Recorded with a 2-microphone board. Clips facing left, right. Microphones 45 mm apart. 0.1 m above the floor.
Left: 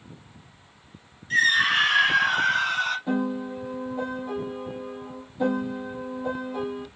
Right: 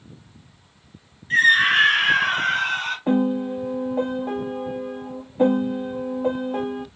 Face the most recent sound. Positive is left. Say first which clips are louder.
# right 6 dB
turn(degrees=-50)  # may be behind; listen again after turning